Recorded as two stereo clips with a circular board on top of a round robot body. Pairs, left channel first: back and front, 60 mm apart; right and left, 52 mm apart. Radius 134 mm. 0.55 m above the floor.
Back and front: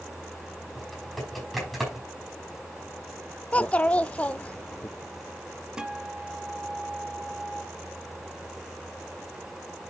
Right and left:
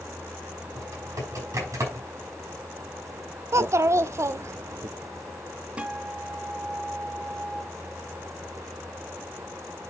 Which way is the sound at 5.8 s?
60° left.